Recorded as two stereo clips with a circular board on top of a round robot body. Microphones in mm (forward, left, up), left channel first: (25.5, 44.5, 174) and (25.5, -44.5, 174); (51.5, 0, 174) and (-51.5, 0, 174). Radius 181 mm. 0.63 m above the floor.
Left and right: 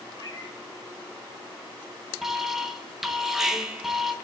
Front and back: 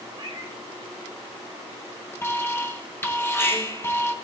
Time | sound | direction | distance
0.1 | a cat meowing | 130° left | 1.2 m
2.2 | an alarm | 10° right | 1.5 m